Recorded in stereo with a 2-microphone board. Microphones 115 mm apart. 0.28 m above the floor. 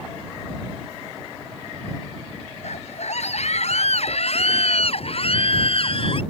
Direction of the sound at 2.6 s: 75° left (ahead or behind).